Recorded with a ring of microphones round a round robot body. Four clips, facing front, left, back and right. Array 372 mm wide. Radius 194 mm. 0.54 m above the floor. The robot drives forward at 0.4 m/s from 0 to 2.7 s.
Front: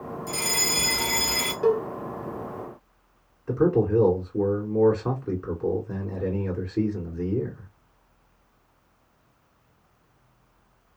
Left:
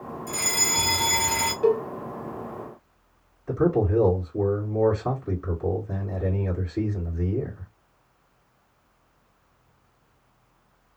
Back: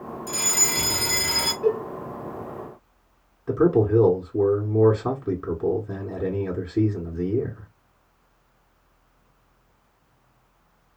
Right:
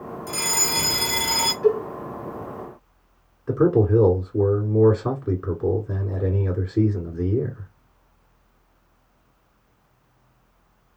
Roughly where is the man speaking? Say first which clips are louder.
Right 4 dB, back 2 dB; behind right.